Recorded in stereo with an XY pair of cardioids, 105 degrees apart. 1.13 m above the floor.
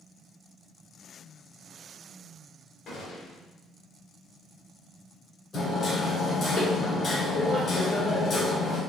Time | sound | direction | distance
2.9 | a gunshot | 65° left | 1.4 m
5.5 | hammering | 50° left | 2.0 m